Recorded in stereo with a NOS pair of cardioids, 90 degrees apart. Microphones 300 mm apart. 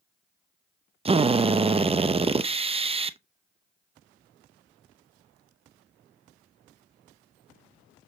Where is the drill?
20° right, 0.7 m.